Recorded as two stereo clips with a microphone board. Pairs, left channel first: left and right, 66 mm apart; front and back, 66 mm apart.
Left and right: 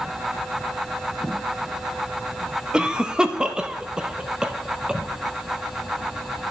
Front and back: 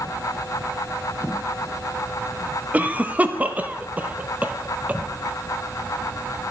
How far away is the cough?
About 0.7 m.